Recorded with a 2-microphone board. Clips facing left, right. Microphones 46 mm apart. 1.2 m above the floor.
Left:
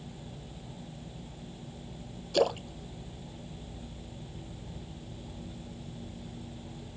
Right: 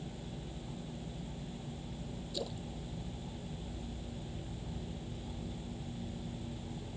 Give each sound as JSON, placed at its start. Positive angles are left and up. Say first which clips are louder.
{"t": 2.3, "sound": "a splash", "louder": "left 16 dB", "side_deg": 65}